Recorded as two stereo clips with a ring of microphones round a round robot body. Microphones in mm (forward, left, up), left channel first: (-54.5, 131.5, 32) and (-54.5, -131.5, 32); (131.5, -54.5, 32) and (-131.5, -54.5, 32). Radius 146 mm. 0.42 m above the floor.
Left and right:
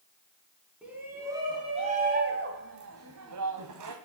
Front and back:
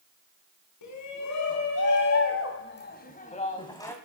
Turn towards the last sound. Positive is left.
turn(degrees=-80)